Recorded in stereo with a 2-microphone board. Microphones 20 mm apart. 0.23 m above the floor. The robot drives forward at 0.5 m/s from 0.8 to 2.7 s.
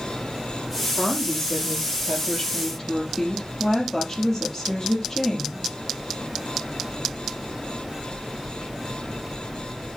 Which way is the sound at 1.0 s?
20° left (ahead or behind).